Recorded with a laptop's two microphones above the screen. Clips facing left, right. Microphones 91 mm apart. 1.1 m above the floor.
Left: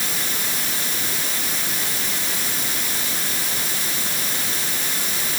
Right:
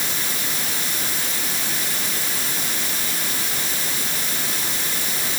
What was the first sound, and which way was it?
Only background noise.